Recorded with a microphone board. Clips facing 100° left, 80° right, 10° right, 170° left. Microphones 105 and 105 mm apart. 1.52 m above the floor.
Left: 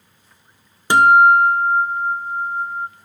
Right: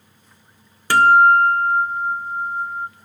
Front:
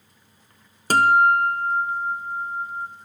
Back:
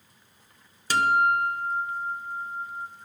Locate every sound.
0.9 s a guitar: 30° left, 0.8 m